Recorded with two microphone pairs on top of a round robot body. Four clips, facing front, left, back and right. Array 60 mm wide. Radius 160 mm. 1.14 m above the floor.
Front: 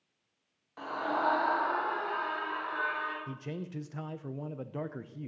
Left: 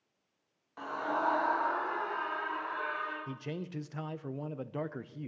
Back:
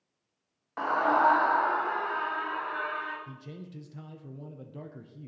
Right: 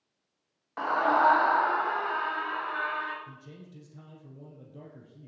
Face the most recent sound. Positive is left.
turn(degrees=70)